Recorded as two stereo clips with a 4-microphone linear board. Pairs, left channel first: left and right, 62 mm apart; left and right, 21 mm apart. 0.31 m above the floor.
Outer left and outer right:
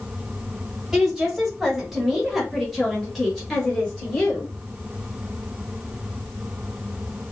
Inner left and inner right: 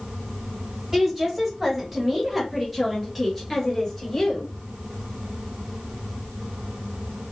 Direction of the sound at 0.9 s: 10° right (ahead or behind).